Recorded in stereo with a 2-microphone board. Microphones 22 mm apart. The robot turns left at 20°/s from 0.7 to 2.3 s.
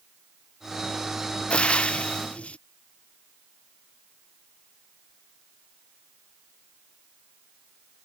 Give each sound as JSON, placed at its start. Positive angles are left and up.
{"t": 1.5, "sound": "frying", "side_deg": 60}